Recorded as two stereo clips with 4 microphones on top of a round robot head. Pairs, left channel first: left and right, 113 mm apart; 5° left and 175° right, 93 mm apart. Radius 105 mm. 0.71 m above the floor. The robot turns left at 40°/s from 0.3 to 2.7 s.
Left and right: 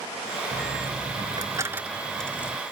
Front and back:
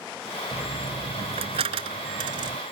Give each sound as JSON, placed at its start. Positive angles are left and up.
{"t": 0.5, "sound": "a dropped coin", "azimuth_deg": -115}